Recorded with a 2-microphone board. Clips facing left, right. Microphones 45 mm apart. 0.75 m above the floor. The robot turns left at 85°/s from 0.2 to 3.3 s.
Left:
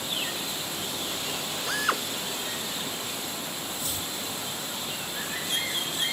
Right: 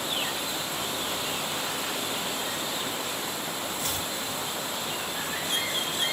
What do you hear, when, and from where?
1.7 s a drill: 105° left; by 2.0 s 70° left
3.8 s chopping: 60° right (ahead or behind)